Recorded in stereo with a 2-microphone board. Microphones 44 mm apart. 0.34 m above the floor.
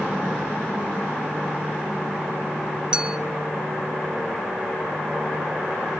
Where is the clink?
20° right (ahead or behind), 0.8 m.